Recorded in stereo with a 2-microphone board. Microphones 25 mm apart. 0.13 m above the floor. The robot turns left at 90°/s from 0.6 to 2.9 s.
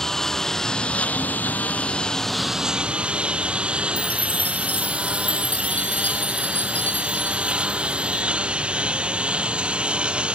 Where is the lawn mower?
165° left; by 10.4 s 45° right.